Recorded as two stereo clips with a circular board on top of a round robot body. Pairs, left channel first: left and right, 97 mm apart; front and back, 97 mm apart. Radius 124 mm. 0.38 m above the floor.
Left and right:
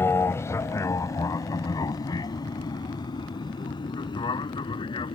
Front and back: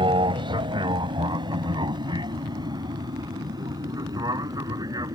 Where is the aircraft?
155° left; by 5.2 s 130° left.